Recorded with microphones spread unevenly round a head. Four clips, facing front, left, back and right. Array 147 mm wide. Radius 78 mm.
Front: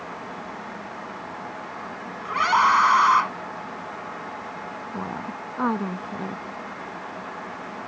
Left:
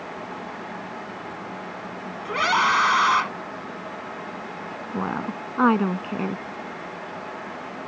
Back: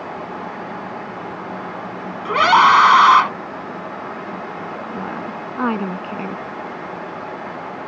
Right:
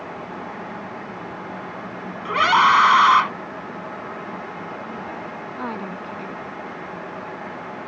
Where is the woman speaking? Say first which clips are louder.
Left 4 dB, back 2 dB; 115° left.